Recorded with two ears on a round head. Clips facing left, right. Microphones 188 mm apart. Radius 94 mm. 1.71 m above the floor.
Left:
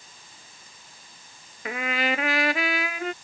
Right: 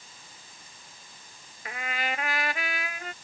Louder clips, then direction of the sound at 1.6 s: Left 7 dB; 60° left (ahead or behind).